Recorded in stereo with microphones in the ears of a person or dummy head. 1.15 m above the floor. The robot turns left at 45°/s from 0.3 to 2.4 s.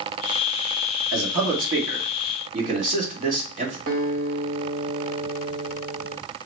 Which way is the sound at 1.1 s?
80° right.